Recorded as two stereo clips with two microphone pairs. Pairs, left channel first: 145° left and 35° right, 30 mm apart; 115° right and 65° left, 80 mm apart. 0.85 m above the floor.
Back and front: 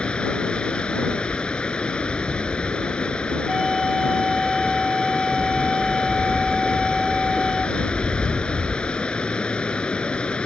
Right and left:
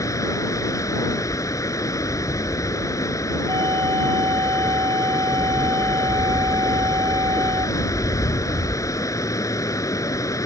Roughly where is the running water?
Behind.